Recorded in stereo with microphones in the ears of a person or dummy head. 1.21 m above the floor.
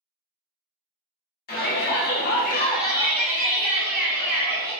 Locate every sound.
1.5 s a shout: 45° left (ahead or behind), 0.9 m; by 4.7 s 20° right (ahead or behind), 1.5 m